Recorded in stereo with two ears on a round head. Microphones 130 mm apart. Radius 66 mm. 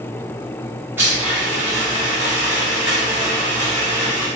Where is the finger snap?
I don't hear a finger snap.